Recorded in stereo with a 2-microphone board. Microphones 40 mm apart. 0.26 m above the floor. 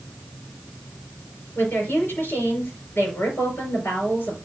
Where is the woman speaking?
60° left (ahead or behind), 4.5 m.